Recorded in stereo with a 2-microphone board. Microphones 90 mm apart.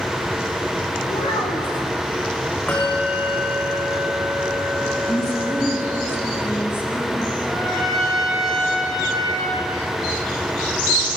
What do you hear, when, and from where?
1.1 s a child speaking: 75° left (ahead or behind), 6 m
2.7 s a bell: 20° left (ahead or behind), 9 m
5.1 s a woman speaking: 25° left (ahead or behind), 5.5 m
7.5 s a trumpet: 5° left (ahead or behind), 4.5 m